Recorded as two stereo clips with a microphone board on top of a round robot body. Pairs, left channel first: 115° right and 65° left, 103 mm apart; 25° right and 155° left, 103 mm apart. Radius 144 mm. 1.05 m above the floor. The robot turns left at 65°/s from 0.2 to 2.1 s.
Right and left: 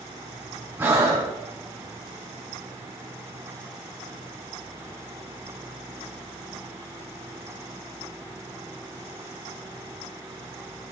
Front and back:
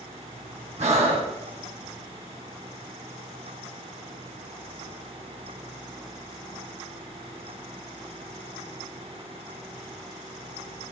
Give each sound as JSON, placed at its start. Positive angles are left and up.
{"t": 0.8, "sound": "breathing", "azimuth_deg": 140, "distance_m": 2.5}